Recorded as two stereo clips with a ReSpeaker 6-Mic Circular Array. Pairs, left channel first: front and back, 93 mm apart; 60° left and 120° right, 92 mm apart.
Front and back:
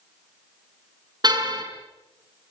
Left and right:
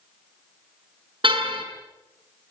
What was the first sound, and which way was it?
A car horn, 140° right.